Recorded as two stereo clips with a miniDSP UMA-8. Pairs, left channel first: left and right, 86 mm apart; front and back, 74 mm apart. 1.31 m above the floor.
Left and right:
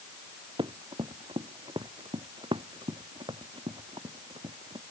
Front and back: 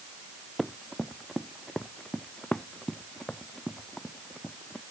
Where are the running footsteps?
90° right; by 4.8 s 75° right.